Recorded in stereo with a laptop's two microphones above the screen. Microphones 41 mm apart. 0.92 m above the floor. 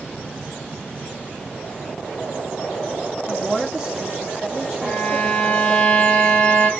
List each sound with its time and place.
3.3 s a woman speaking: 10° right (ahead or behind), 1.3 m
4.8 s a violin: 25° left (ahead or behind), 1.6 m